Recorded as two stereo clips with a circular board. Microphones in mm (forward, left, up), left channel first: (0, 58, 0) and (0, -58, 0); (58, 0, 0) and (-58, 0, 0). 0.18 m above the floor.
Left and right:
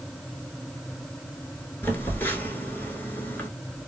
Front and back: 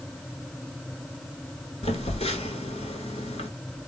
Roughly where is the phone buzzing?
Ahead.